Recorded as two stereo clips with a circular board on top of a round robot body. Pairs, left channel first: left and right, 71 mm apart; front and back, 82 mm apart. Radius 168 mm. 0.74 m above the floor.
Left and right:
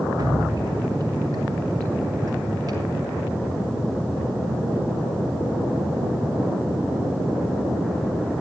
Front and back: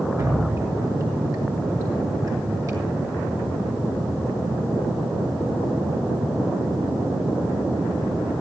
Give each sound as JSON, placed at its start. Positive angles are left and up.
{"t": 0.2, "sound": "dripping", "azimuth_deg": -130, "distance_m": 7.0}